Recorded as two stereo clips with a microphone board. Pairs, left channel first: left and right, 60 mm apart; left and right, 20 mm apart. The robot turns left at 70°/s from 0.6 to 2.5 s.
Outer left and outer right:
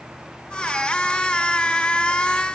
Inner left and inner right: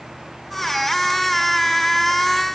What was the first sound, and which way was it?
Only background noise.